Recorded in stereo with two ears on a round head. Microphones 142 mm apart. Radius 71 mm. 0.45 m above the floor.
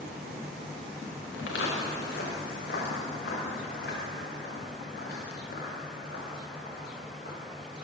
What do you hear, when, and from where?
1.3 s footsteps: 80° left, 3.5 m; by 7.8 s 60° left (ahead or behind), 7 m